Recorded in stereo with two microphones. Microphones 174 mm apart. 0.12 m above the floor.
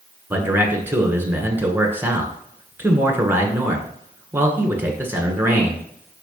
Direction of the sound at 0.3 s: 15° right (ahead or behind).